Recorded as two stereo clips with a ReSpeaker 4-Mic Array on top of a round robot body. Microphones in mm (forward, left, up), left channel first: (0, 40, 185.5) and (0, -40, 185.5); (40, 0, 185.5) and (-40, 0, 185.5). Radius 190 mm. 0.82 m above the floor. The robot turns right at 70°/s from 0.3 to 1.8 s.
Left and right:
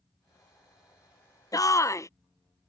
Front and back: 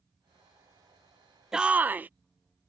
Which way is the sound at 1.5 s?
100° left.